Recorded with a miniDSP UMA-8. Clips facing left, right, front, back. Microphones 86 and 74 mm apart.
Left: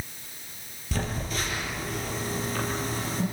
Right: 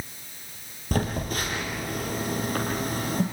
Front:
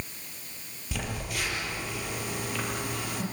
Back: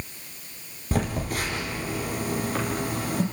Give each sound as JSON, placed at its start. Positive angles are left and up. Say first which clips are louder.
{"t": 0.9, "sound": "a phone buzzing", "louder": "right 4 dB, back 7 dB", "azimuth_deg": -130, "distance_m": 5.5}